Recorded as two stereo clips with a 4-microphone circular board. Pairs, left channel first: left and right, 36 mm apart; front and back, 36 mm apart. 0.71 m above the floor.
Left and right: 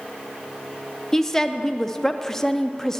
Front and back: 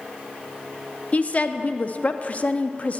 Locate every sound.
1.1 s a woman speaking: 20° left, 0.6 m